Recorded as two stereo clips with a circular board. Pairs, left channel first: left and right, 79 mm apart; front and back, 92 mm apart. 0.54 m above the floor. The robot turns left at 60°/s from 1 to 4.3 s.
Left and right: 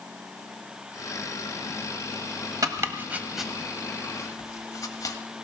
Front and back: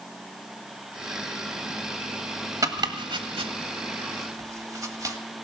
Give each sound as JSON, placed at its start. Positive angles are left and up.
{"t": 2.6, "sound": "chopping", "azimuth_deg": -130, "distance_m": 1.5}